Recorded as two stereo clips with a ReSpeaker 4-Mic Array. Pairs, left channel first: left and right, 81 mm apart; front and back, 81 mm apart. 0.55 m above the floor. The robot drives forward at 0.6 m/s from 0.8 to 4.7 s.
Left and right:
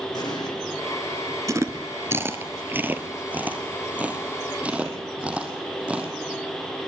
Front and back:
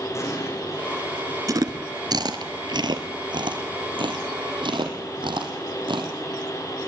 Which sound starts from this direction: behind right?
Chewing, at 1.5 s.